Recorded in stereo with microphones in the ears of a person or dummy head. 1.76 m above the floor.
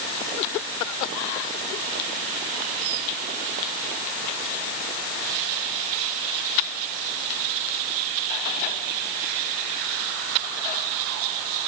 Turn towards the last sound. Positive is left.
No sound to turn to.